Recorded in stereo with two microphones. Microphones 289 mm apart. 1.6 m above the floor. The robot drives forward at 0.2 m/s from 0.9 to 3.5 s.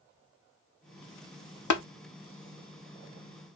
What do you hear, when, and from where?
1.7 s tapping: 90° left, 0.6 m; by 1.8 s 85° left, 0.6 m